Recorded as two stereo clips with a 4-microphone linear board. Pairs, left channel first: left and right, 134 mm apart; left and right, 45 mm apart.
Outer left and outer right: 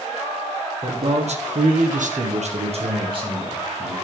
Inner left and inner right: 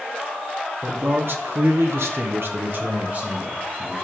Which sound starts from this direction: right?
A man speaking, at 0.8 s.